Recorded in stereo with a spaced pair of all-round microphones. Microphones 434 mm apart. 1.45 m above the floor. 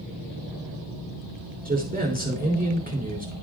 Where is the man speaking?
20° right (ahead or behind), 3.5 m.